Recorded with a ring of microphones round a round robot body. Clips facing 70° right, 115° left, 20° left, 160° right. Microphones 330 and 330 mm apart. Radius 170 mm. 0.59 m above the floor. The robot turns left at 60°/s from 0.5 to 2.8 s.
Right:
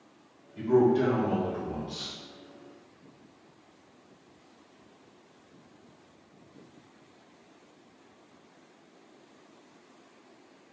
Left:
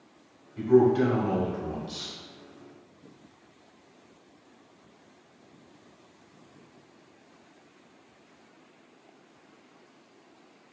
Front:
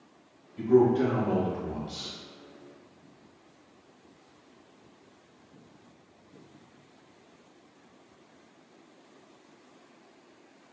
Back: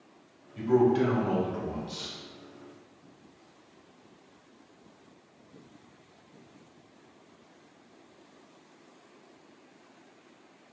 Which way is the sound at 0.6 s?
150° right.